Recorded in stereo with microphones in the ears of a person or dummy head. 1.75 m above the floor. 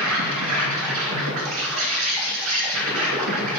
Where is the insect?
80° right, 2.5 m.